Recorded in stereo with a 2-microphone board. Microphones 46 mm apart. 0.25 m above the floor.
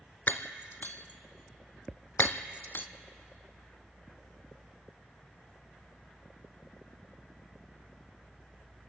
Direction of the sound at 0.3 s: 50° left (ahead or behind).